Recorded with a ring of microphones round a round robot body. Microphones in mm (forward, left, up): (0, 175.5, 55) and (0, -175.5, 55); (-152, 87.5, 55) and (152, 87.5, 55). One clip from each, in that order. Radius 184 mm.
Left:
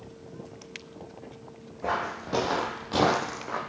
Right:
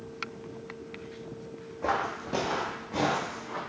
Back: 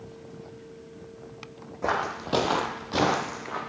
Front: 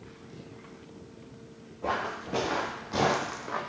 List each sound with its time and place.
1.8 s footsteps: 165° right, 0.9 m; by 3.6 s 75° left, 1.0 m